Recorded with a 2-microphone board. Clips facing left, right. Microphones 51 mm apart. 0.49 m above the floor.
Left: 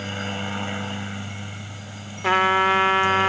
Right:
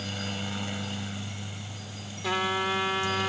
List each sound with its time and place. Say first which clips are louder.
0.0 s a helicopter: left 6 dB; 35° left (ahead or behind)
2.2 s a trumpet: left 10 dB; 50° left (ahead or behind)